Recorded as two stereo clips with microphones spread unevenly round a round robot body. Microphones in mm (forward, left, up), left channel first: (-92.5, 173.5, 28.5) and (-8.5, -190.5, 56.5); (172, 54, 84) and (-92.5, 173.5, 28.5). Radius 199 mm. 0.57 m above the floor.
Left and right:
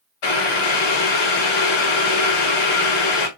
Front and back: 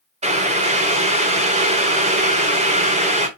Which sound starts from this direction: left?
Boiling, at 0.2 s.